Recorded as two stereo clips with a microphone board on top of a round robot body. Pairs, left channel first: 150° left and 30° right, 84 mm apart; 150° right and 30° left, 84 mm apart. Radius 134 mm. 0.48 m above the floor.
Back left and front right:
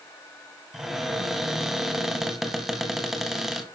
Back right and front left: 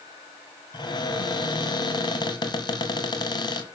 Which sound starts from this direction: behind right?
A cupboard door, at 0.7 s.